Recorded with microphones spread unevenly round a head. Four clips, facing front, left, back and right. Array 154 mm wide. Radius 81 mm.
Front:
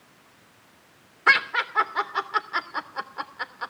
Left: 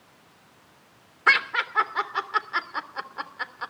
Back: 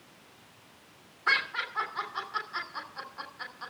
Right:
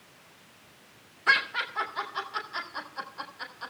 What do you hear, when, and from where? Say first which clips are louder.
1.3 s laughter: left 4 dB, front 8 dB; 30° left, 3 m